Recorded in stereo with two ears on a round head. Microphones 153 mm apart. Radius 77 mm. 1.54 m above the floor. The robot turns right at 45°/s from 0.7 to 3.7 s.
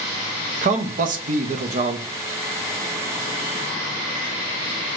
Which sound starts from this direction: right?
A man speaking, at 0.6 s.